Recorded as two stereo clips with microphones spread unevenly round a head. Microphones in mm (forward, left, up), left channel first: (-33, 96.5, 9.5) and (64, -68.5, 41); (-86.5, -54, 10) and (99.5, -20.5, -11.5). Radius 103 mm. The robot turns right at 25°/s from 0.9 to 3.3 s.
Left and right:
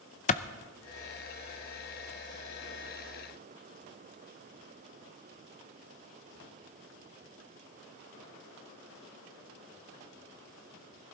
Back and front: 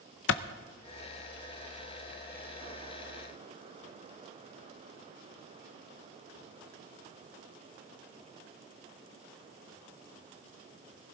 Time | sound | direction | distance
0.3 | a clap | 165° left | 0.7 m